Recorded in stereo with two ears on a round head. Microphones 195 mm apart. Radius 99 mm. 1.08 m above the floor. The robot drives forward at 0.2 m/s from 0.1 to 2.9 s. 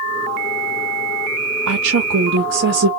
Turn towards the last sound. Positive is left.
turn(degrees=-60)  # may be behind; listen again after turning